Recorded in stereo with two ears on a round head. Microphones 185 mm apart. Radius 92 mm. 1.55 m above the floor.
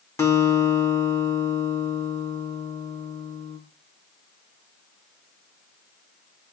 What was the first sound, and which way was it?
A guitar, 15° left (ahead or behind).